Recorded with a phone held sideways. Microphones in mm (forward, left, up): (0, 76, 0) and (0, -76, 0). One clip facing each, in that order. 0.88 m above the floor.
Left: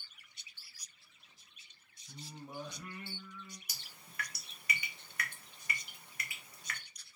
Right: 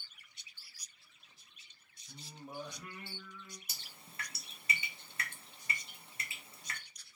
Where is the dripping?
25° right (ahead or behind), 0.6 m.